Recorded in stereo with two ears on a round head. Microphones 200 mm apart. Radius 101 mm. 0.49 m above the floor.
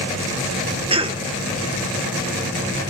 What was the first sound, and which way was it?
A cough, 25° right (ahead or behind).